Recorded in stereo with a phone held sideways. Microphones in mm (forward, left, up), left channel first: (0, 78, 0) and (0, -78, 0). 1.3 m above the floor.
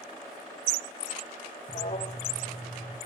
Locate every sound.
1.7 s an alarm: 55° left (ahead or behind), 1.8 m